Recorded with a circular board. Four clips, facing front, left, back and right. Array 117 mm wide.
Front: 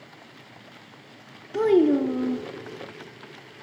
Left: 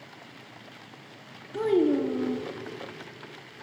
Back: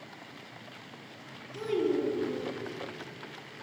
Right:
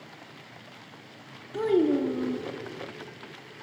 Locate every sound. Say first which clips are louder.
1.5 s a child speaking: even, front 10 dB; straight ahead, 1.3 m